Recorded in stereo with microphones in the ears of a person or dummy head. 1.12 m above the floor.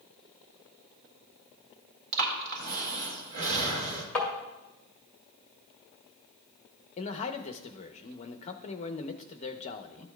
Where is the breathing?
65° right (ahead or behind), 1.6 m.